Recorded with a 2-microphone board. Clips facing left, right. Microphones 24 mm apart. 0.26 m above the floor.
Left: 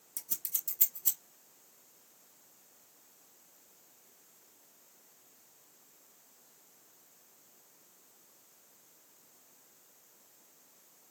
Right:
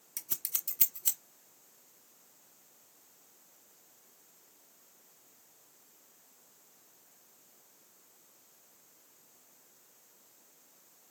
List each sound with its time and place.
0.2 s scissors: 65° right (ahead or behind), 1.3 m